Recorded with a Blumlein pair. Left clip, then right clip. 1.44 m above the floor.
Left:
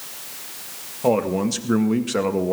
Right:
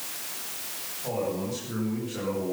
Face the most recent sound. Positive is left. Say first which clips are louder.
# left 10 dB
turn(degrees=50)